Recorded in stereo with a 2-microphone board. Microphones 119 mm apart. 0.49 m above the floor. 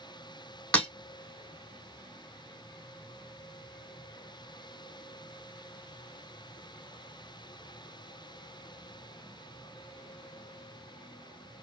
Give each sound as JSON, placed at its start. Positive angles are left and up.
{"t": 0.7, "sound": "breaking glass", "side_deg": 10, "distance_m": 2.0}